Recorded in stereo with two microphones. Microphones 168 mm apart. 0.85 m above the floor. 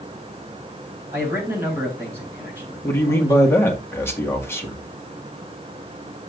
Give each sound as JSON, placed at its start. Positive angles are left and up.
{"t": 1.1, "sound": "a man speaking", "side_deg": -15, "distance_m": 4.5}
{"t": 2.8, "sound": "a man speaking", "side_deg": 15, "distance_m": 1.9}